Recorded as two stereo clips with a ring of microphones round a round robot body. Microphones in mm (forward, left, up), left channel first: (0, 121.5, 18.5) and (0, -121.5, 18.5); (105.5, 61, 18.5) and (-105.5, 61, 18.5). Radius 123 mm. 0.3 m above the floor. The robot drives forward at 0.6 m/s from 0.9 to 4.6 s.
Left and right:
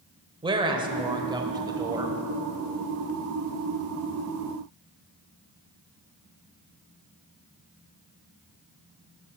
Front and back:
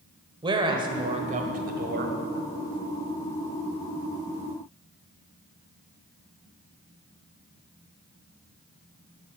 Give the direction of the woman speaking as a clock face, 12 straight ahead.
5 o'clock.